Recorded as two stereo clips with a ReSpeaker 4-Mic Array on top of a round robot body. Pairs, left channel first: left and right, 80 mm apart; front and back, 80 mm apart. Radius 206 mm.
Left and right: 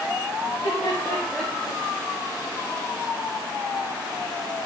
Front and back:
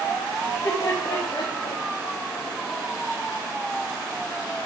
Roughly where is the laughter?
Ahead left.